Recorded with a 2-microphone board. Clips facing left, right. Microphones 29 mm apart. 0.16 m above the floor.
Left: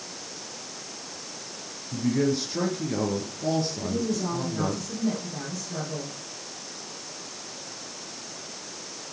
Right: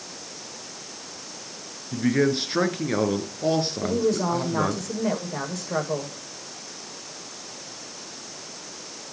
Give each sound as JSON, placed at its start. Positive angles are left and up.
{"t": 1.9, "sound": "a man speaking", "side_deg": -50, "distance_m": 2.5}
{"t": 3.8, "sound": "a woman speaking", "side_deg": -85, "distance_m": 8.5}